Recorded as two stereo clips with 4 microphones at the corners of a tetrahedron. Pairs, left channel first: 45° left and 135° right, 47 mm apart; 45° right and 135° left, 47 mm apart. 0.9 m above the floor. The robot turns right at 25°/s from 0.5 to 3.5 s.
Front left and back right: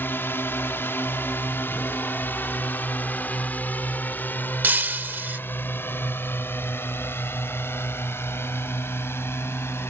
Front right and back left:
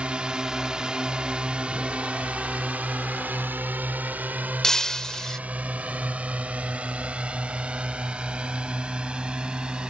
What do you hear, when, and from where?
0.0 s a drone: 70° left; by 9.9 s 65° left
4.6 s breaking glass: 120° right